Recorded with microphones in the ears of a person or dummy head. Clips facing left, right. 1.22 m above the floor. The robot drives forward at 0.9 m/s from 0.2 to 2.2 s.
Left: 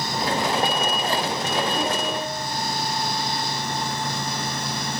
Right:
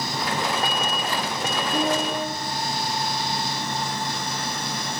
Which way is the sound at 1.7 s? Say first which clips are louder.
Right 2 dB; 45° right (ahead or behind).